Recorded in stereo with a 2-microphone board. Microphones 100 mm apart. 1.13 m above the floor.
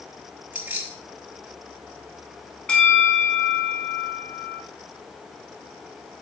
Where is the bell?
10° left (ahead or behind), 3.5 m.